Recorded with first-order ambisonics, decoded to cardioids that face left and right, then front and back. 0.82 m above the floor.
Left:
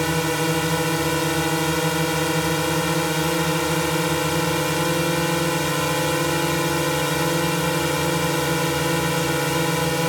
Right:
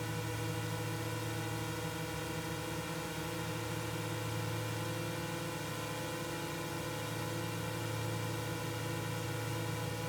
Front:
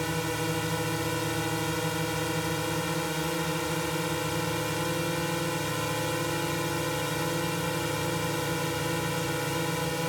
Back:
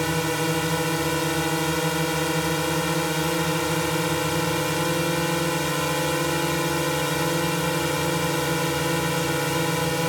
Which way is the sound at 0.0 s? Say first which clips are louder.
Left 19 dB, back 6 dB; 115° left.